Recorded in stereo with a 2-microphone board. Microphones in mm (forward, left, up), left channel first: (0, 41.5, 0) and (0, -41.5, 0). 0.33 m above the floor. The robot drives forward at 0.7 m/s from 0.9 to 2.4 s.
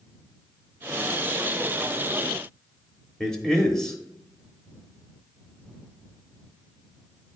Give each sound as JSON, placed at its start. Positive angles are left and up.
{"t": 3.2, "sound": "a man speaking", "side_deg": 5, "distance_m": 1.1}